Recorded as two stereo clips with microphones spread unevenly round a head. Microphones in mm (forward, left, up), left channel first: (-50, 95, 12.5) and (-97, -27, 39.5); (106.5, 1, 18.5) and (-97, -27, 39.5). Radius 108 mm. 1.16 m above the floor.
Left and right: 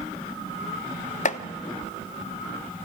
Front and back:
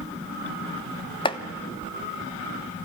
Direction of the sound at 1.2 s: 70° left.